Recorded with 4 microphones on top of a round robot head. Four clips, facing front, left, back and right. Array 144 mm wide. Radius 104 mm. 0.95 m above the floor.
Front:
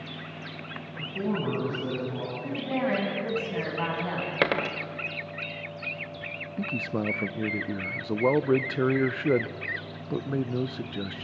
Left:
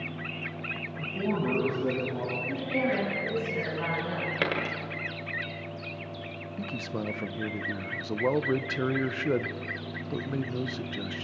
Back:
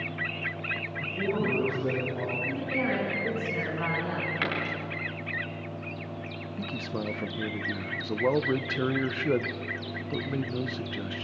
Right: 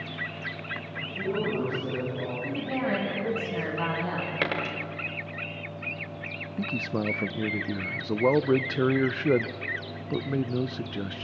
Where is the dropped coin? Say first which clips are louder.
Even, front 5 dB; 5° left, 1.5 m.